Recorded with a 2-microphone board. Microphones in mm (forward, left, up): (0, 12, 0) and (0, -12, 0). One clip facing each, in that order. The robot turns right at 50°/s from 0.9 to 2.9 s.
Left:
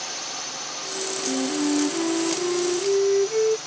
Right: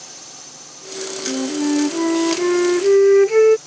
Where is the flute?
165° right; by 3.6 s 85° right.